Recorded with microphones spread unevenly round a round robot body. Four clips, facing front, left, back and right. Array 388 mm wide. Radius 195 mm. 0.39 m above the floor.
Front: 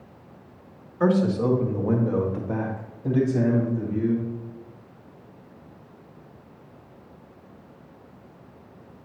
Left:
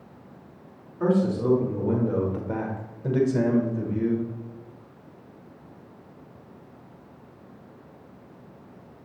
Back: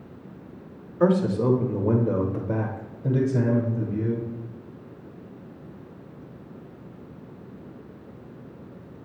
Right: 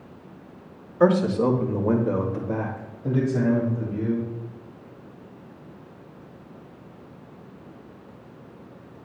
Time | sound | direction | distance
1.0 | a man speaking | 115° right | 1.2 m